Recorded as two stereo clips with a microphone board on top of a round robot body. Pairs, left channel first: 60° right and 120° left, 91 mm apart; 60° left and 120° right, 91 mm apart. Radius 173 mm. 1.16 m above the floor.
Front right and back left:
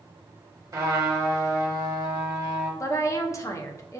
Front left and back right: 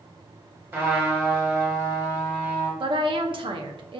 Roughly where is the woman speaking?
Right.